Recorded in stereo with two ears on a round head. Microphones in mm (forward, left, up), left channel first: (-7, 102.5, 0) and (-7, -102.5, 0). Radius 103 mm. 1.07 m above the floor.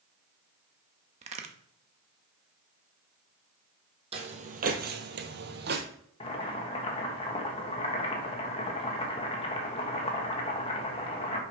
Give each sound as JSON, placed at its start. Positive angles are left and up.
{"t": 1.2, "sound": "a crack", "side_deg": -30, "distance_m": 0.9}
{"t": 4.1, "sound": "footsteps", "side_deg": -25, "distance_m": 1.9}
{"t": 6.2, "sound": "boiling", "side_deg": 25, "distance_m": 1.5}